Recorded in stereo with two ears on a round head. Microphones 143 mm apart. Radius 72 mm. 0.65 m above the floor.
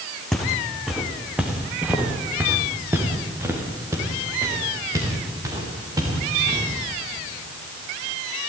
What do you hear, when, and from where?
0.3 s footsteps: centre (ahead or behind), 3 m; by 6.7 s 25° right (ahead or behind), 7 m